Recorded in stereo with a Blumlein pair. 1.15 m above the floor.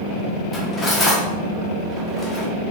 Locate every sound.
0.5 s cutlery clinking: 15° left, 1.0 m